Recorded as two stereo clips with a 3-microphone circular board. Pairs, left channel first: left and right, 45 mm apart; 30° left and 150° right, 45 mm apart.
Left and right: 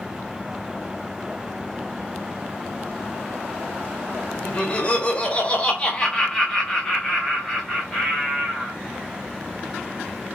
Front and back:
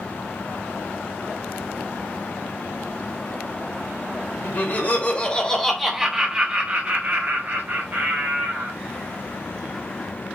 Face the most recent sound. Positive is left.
turn(degrees=180)